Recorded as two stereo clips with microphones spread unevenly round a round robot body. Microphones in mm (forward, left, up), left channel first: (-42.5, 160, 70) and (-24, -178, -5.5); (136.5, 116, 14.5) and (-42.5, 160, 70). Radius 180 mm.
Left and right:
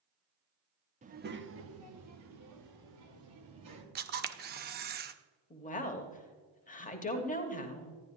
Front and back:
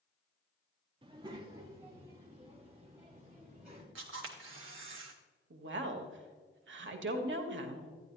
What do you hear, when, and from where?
1.0 s a child speaking: 120° right, 0.8 m; by 3.9 s 100° right, 2.5 m
4.0 s a camera shutter: 155° right, 0.5 m
5.5 s a woman speaking: 165° left, 1.2 m